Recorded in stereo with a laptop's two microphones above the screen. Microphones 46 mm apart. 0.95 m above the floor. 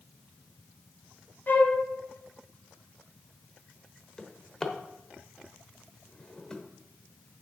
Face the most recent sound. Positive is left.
turn(degrees=15)  # may be behind; listen again after turning